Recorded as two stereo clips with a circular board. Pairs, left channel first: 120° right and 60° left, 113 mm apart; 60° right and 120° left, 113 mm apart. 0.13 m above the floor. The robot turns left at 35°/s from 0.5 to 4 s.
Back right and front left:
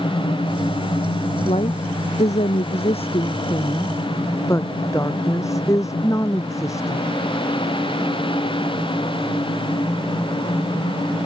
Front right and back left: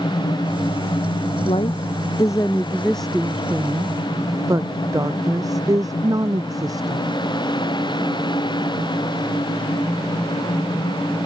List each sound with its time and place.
1.4 s a woman speaking: 90° right; by 7.0 s straight behind